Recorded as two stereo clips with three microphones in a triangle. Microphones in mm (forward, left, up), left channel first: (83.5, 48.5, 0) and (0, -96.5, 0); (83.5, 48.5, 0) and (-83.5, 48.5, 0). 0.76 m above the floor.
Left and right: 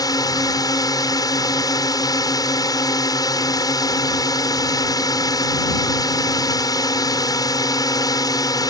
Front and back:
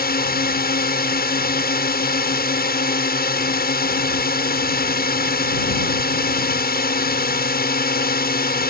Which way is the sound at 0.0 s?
5° right.